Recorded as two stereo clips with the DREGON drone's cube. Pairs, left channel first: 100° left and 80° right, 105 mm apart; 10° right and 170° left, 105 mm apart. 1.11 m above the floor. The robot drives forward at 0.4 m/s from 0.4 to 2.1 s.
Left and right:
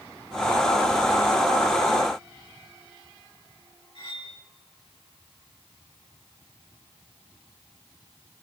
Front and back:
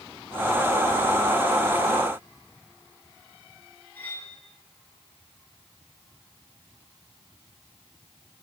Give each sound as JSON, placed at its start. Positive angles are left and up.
{"t": 4.0, "sound": "cutlery clinking", "azimuth_deg": 60, "distance_m": 5.5}